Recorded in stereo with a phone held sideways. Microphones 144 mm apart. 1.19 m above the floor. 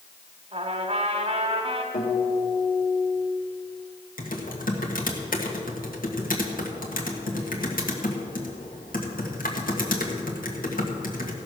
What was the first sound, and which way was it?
A trumpet, 45° right (ahead or behind).